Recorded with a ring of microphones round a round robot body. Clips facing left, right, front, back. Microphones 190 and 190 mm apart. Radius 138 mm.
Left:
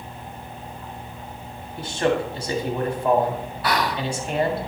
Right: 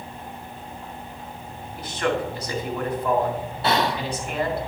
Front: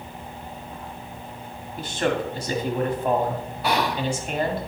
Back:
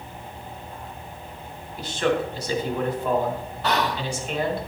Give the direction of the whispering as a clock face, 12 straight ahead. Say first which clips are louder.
Right 1 dB, front 1 dB; 2 o'clock.